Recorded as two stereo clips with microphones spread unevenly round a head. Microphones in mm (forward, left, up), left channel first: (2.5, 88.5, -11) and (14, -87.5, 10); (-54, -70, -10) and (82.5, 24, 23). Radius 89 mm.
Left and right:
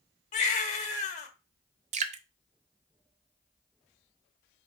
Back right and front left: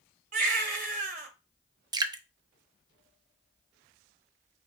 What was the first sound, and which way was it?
A baby crying, 45° left.